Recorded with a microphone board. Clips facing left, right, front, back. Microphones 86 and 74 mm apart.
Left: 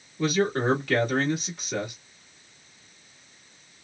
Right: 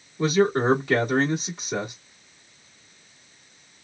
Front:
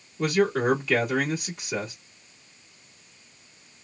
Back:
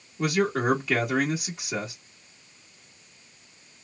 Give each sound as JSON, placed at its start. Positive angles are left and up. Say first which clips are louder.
{"t": 0.2, "sound": "a man speaking", "louder": "right 4 dB, front 2 dB", "azimuth_deg": -115, "distance_m": 1.3}